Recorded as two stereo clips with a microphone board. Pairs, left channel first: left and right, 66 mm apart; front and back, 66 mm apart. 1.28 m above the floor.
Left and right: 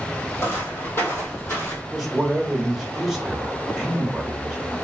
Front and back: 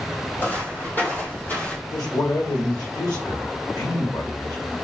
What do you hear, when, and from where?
0.4 s footsteps: 50° left, 2.5 m; by 1.8 s 55° left, 1.8 m
1.9 s a man speaking: 5° right, 1.5 m